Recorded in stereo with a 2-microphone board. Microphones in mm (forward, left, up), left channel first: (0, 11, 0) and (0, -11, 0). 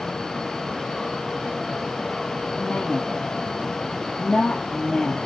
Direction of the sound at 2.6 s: 85° left.